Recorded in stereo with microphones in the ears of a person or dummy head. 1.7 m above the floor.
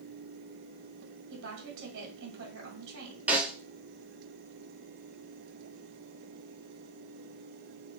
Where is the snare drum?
5° right (ahead or behind), 0.7 m.